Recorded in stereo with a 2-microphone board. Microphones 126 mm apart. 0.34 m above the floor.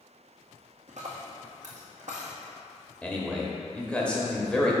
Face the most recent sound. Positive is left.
turn(degrees=10)  # may be behind; listen again after turning